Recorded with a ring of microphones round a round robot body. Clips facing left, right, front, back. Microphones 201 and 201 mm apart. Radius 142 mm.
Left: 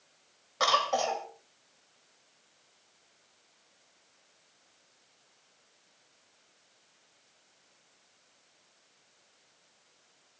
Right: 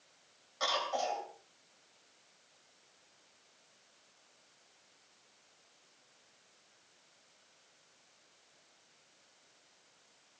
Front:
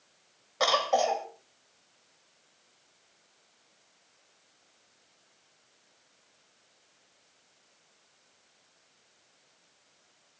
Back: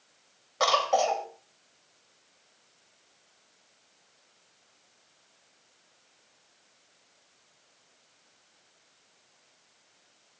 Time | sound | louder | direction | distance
0.6 | a cough | left 6 dB, back 1 dB | 85° left | 3 m